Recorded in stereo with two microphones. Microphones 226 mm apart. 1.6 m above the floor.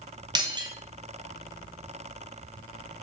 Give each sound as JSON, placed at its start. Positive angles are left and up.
{"t": 0.3, "sound": "breaking glass", "side_deg": -20, "distance_m": 0.8}